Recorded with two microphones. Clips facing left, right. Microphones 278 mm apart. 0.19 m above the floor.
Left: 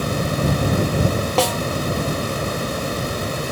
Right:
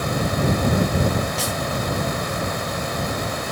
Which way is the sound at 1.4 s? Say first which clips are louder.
Left 8 dB; 85° left.